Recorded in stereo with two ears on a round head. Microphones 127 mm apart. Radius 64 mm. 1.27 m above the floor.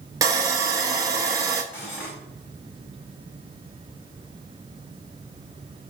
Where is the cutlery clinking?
20° left (ahead or behind), 4.5 m.